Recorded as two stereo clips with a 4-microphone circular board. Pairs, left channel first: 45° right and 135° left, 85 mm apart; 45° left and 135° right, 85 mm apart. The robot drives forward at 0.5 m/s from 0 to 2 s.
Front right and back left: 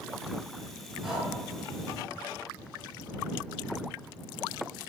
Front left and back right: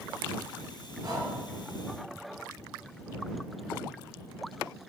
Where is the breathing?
140° right, 1.2 m; by 1.3 s 145° right, 1.3 m.